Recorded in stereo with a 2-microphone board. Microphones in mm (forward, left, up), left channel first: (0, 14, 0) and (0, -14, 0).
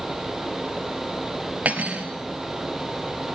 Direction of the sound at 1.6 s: 70° right (ahead or behind).